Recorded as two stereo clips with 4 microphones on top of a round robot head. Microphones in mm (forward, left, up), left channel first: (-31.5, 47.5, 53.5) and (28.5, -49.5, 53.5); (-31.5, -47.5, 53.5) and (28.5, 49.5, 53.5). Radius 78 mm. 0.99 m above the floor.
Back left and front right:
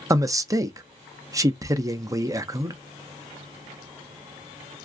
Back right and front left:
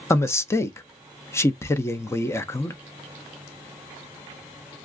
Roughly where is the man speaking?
Right.